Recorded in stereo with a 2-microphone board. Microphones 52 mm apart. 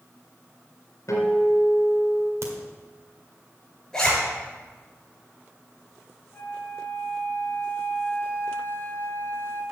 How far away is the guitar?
About 3.5 m.